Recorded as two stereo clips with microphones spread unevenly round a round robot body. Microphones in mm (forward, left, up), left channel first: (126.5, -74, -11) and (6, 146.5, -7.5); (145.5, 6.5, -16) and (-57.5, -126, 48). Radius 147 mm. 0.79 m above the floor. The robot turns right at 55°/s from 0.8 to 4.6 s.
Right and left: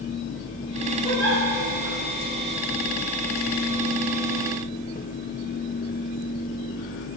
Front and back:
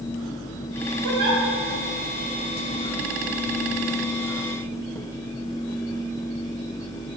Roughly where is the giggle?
Behind right.